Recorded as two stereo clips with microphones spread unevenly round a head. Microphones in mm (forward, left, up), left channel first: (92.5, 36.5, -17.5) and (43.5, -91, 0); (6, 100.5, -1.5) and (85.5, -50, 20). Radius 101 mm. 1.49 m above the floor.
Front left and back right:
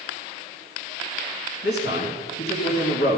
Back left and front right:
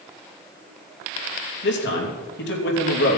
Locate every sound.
1.6 s a man speaking: 105° left, 3 m